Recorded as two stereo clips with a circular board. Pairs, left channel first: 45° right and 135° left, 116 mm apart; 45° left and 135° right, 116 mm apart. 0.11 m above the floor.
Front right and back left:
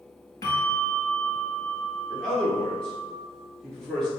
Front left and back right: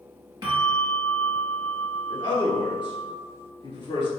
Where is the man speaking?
35° left, 1.9 m.